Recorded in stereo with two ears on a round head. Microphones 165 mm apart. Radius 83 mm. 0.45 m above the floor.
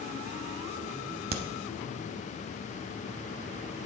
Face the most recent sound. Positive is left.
turn(degrees=-60)  # may be behind; listen again after turning